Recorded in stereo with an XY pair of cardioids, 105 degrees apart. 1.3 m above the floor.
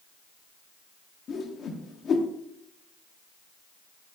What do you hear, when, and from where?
1.3 s a whoosh: 55° left, 0.5 m